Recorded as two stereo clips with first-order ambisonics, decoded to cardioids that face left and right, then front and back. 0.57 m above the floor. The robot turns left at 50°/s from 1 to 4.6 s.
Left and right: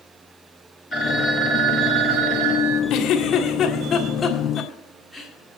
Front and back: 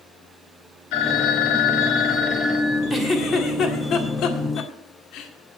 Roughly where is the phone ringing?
Ahead.